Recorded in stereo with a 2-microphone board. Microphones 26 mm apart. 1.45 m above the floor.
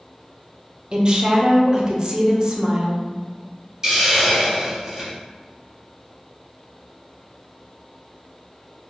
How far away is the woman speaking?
About 0.6 m.